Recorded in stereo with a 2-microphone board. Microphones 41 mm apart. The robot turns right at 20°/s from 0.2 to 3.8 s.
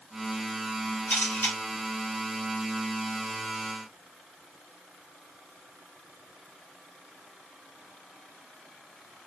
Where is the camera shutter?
55° left (ahead or behind), 1.4 m; by 1.6 s 50° left (ahead or behind), 1.4 m.